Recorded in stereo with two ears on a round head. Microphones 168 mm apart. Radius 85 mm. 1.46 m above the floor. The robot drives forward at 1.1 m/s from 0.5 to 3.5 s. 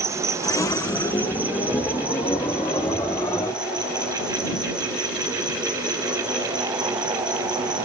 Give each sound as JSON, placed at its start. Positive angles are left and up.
{"t": 0.0, "sound": "an insect", "side_deg": -15, "distance_m": 1.4}